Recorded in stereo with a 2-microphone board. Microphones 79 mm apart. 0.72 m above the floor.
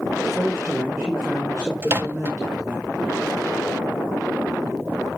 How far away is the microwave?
About 0.6 m.